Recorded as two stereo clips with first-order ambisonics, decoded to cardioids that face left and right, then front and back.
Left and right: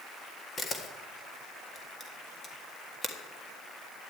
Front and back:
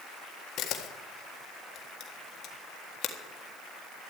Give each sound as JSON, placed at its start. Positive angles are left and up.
{"t": 0.6, "sound": "a camera shutter", "azimuth_deg": 20, "distance_m": 1.5}